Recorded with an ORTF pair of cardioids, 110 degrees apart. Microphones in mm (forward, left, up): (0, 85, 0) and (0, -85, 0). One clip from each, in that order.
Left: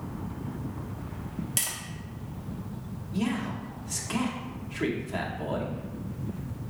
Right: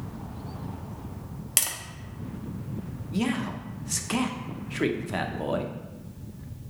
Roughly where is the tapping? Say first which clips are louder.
Right 4 dB; ahead right.